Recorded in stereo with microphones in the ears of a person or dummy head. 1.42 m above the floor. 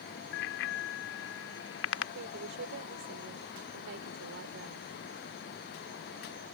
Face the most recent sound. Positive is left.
turn(degrees=-65)  # may be behind; listen again after turning